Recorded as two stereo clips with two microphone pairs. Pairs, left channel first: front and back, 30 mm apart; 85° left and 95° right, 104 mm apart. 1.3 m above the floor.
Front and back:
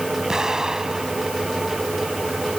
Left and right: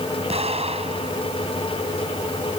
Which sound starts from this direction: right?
An explosion, at 0.3 s.